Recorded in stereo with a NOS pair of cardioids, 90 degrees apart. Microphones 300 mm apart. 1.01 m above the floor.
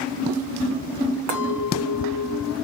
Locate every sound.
1.3 s a clink: 65° right, 1.4 m